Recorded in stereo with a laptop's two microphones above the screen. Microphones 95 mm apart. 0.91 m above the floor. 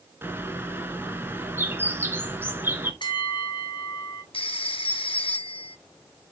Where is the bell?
60° left (ahead or behind), 1.6 m.